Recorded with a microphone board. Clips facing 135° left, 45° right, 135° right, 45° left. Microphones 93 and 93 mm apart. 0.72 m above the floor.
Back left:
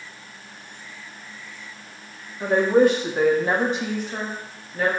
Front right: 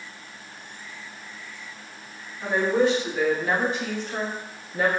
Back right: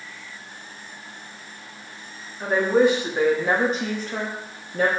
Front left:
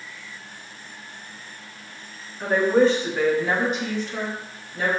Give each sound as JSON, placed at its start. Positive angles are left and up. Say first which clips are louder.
{"t": 2.4, "sound": "a woman speaking", "louder": "back left 5 dB, even", "azimuth_deg": 140, "distance_m": 1.2}